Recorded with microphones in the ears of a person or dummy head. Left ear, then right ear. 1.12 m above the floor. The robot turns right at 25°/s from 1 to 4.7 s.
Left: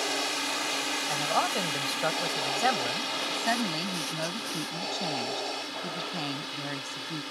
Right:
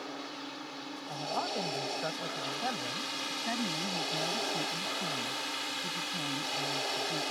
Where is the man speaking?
65° left; by 3.1 s 120° left.